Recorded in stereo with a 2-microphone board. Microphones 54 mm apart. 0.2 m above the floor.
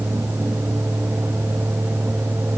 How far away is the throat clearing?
I don't hear throat clearing.